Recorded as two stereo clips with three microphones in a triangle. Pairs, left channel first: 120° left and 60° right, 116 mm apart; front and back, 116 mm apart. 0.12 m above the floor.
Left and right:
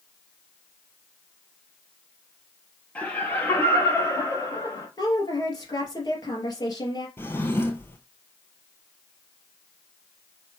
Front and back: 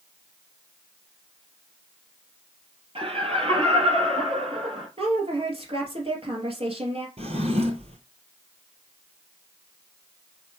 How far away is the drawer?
About 1.3 m.